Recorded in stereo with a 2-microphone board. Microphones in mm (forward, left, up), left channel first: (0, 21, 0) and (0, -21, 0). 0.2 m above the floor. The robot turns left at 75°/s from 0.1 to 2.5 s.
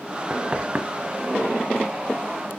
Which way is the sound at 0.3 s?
20° right (ahead or behind).